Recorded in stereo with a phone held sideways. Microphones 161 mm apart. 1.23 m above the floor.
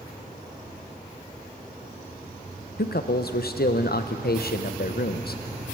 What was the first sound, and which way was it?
A man speaking, 75° left (ahead or behind).